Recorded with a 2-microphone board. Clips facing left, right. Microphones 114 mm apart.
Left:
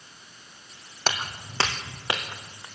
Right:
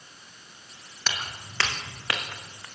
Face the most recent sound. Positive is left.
turn(degrees=15)  # may be behind; listen again after turning